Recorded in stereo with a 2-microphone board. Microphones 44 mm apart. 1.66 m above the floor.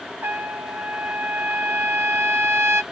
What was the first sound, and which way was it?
A trumpet, 70° right (ahead or behind).